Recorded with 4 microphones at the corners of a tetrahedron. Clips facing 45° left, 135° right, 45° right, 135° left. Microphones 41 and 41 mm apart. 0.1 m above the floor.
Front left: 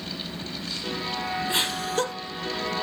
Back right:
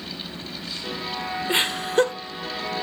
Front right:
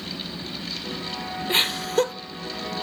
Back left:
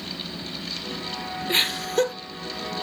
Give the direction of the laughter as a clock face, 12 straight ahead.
5 o'clock.